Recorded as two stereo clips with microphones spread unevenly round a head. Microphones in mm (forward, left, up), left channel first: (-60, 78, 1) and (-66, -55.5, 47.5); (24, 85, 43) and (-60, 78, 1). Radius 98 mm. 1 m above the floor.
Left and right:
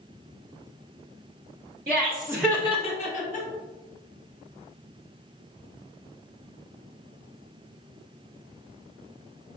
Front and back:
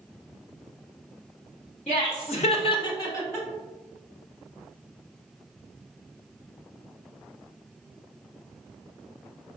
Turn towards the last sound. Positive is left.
turn(degrees=75)